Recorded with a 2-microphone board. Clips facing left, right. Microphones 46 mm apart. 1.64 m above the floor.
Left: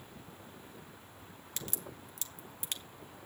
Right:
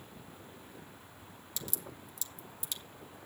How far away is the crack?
About 0.9 m.